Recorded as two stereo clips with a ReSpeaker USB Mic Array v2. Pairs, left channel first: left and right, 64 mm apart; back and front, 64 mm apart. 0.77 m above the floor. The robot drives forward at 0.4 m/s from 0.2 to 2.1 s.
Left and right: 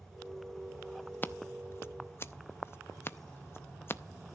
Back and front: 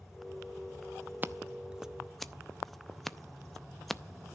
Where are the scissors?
45° left, 0.6 m; by 4.0 s 95° left, 0.5 m.